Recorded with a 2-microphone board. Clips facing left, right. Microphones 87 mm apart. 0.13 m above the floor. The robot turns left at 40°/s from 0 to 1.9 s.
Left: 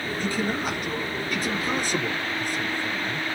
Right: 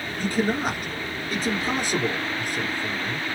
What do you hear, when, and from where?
0.2 s a man speaking: 90° right, 2.5 m; by 3.2 s 160° right, 2.5 m